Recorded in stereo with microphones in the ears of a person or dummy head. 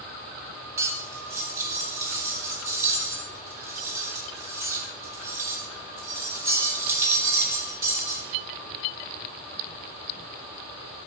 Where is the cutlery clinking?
15° right (ahead or behind), 1.5 m.